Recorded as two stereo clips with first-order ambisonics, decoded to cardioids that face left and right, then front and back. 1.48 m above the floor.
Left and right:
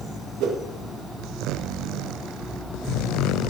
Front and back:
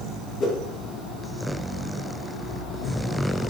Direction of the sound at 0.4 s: 65° right.